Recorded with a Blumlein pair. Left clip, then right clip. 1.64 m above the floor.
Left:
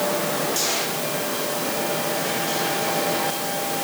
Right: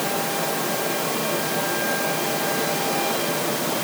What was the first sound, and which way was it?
Only background noise.